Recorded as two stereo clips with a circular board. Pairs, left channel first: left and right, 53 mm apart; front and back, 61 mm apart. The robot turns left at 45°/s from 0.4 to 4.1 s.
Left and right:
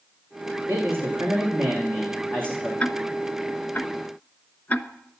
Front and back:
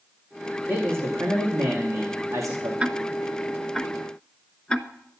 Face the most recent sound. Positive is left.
turn(degrees=65)